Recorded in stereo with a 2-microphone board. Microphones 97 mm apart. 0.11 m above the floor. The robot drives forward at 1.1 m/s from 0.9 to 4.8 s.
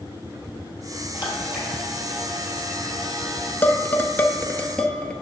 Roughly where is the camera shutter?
Centre.